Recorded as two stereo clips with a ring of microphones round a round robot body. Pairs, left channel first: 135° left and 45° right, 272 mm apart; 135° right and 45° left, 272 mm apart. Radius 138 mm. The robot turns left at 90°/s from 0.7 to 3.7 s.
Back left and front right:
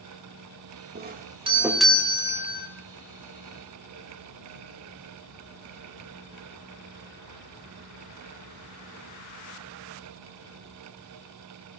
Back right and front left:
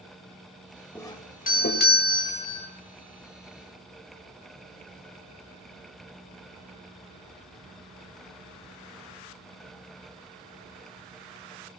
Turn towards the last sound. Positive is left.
turn(degrees=55)